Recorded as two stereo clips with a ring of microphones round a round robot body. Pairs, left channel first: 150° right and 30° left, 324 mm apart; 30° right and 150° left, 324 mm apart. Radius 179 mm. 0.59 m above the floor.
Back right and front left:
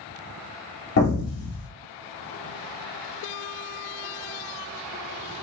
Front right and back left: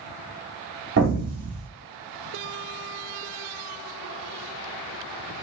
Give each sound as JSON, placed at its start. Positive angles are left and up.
{"t": 1.0, "sound": "an explosion", "azimuth_deg": 180, "distance_m": 1.7}